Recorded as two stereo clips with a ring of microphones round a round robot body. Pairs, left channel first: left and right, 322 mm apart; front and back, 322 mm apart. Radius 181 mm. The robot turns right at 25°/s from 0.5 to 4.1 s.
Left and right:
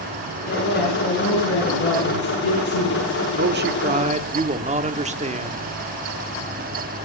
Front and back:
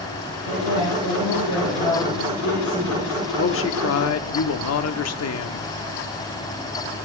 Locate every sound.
0.5 s a man speaking: 25° left, 6 m; by 3.3 s 95° left, 6 m
3.4 s a man speaking: 45° right, 1.1 m; by 5.7 s 25° right, 1.1 m